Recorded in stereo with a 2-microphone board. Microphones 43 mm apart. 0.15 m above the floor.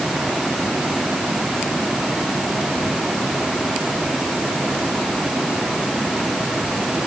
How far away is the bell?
I don't hear a bell.